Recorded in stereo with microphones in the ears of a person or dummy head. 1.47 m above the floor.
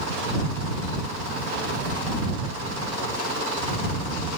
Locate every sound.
Only background noise.